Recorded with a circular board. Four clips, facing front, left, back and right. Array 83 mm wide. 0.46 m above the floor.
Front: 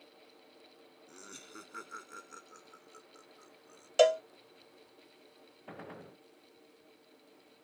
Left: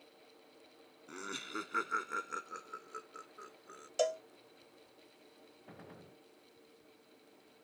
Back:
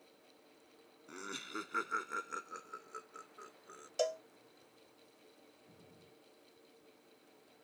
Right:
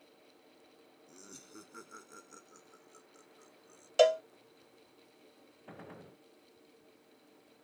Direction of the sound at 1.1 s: 115° left.